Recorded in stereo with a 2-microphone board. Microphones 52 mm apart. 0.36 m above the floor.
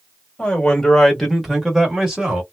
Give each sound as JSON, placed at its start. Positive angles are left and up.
{"t": 0.4, "sound": "a man speaking", "side_deg": 20, "distance_m": 1.1}